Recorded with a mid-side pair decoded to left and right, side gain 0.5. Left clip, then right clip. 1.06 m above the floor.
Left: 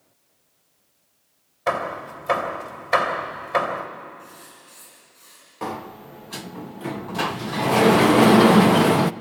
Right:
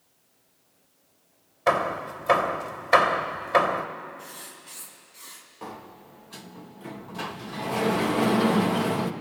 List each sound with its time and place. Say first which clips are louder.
1.7 s hammering: right 1 dB; 15° right, 2.5 m
4.2 s writing: right 1 dB; 70° right, 5.5 m
5.6 s a sliding door: left 10 dB; 55° left, 0.5 m